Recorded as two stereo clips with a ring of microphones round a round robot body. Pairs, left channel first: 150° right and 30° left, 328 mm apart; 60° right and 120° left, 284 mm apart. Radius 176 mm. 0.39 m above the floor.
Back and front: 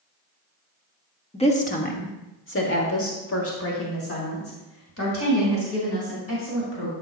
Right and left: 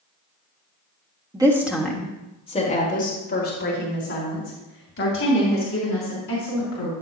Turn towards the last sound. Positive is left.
turn(degrees=-100)